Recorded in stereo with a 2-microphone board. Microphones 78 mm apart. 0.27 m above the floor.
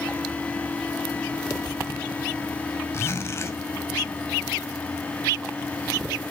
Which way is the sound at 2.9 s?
35° left (ahead or behind).